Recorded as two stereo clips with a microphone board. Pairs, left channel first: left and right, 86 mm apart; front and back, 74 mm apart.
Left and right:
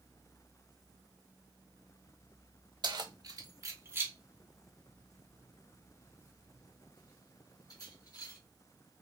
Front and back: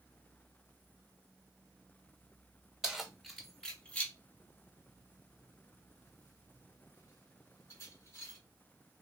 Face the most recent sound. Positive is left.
turn(degrees=50)